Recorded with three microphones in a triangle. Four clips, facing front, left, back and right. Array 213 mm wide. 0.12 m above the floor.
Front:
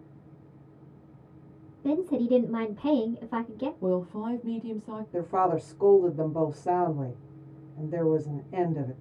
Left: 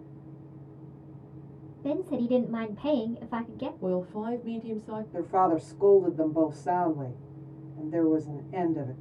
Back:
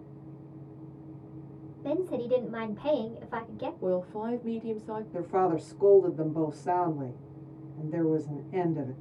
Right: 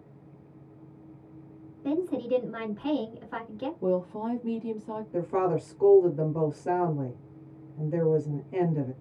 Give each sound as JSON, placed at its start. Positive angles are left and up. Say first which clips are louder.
{"t": 1.8, "sound": "a woman speaking", "louder": "even, front 4 dB", "azimuth_deg": 55, "distance_m": 1.1}
{"t": 3.8, "sound": "a woman speaking", "louder": "right 3 dB, front 1 dB", "azimuth_deg": -20, "distance_m": 1.3}
{"t": 5.1, "sound": "a woman speaking", "louder": "left 2 dB, front 2 dB", "azimuth_deg": -35, "distance_m": 1.5}